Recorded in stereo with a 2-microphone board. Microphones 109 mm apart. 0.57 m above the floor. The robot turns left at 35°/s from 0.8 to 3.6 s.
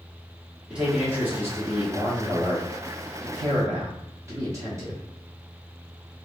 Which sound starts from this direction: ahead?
A man speaking, at 0.7 s.